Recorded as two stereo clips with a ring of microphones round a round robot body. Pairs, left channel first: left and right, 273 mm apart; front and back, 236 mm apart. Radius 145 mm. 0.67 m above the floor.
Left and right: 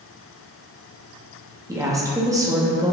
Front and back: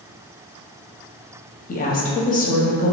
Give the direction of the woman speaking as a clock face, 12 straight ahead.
1 o'clock.